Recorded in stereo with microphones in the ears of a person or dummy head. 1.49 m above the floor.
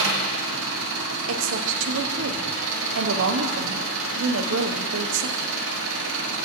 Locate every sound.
0.0 s an engine running: 75° right (ahead or behind), 1.2 m
1.3 s a woman speaking: 75° right (ahead or behind), 0.7 m